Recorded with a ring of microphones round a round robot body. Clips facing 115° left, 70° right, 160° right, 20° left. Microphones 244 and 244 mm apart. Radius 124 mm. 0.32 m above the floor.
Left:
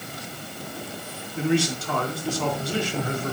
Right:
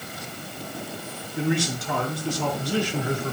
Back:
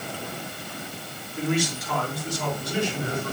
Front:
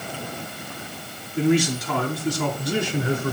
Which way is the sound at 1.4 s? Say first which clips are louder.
Left 2 dB, front 6 dB; 5° left.